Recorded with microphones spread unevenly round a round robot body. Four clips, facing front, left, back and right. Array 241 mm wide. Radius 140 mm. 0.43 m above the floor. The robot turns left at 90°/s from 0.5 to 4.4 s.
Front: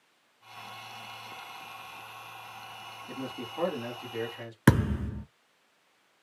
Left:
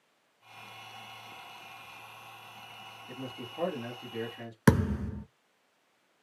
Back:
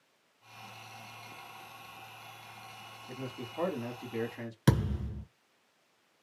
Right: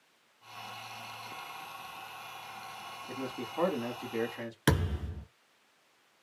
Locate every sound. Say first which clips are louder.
3.1 s a man speaking: right 3 dB, front 3 dB; 20° right, 1.2 m; by 4.6 s 140° right, 1.2 m
4.7 s a thud: left 5 dB, front 6 dB; 20° left, 0.8 m